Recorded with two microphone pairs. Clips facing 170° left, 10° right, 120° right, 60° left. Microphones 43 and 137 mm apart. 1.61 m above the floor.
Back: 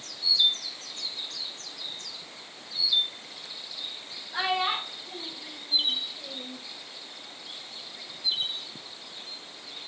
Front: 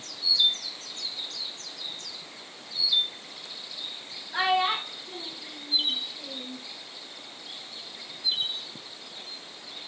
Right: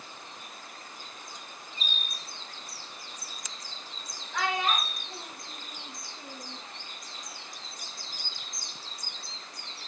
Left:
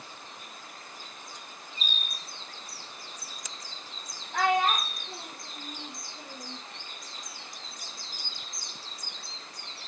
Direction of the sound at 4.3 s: 55° left.